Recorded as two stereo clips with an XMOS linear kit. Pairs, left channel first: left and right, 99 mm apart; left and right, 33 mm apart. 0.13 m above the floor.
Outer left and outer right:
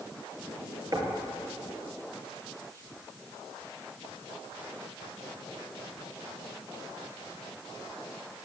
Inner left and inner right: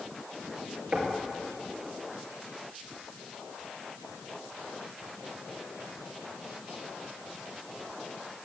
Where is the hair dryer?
No hair dryer in this recording.